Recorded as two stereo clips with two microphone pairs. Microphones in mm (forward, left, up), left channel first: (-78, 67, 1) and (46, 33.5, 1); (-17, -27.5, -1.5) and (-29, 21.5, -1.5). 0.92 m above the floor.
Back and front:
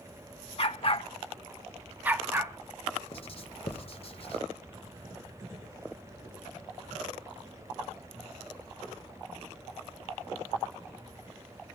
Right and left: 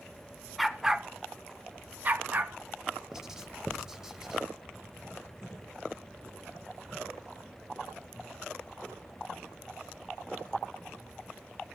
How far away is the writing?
About 1.0 m.